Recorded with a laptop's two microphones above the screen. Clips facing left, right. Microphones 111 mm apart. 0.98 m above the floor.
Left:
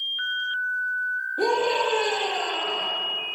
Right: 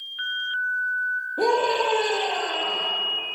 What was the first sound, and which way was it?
A scream, 60° right (ahead or behind).